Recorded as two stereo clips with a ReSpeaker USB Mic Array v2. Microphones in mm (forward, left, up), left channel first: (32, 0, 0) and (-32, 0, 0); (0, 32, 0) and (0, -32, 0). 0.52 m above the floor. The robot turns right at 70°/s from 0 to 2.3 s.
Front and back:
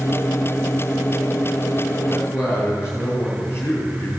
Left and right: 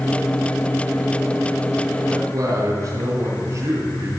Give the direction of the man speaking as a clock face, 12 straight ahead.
2 o'clock.